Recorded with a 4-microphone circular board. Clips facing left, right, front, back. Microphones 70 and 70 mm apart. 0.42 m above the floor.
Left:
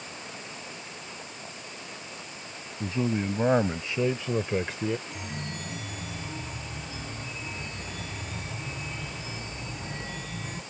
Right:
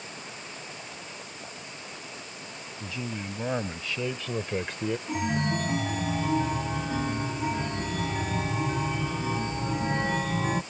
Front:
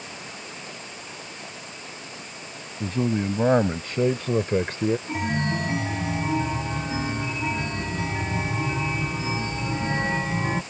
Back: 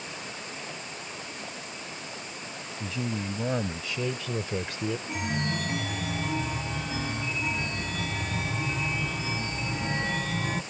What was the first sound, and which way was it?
A man speaking, 35° left.